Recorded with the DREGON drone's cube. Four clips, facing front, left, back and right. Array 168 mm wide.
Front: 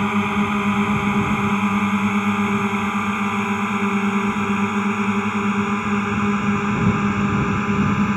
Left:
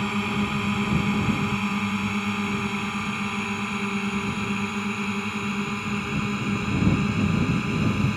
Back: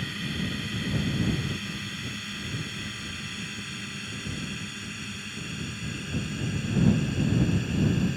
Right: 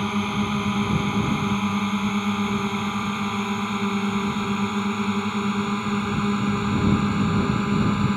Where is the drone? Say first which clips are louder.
Right 2 dB, front 14 dB; 5° right; by 8.2 s 20° right.